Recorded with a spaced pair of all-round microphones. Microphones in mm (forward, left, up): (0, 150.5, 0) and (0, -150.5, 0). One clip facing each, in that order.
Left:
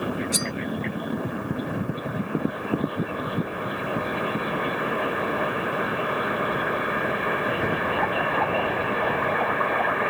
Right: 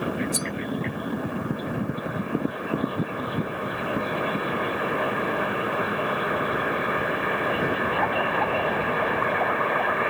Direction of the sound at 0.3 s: 80° left.